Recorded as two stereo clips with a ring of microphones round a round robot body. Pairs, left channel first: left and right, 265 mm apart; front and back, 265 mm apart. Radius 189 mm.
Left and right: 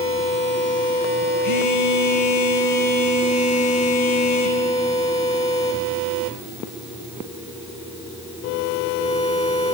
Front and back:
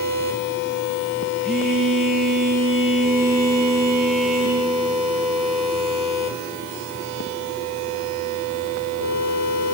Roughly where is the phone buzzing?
Left.